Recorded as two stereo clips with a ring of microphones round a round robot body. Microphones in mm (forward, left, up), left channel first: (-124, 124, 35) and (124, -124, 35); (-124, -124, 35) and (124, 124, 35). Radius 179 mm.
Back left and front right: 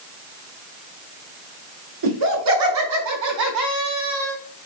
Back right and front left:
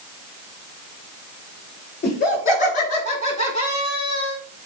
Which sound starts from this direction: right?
Laughter, at 2.0 s.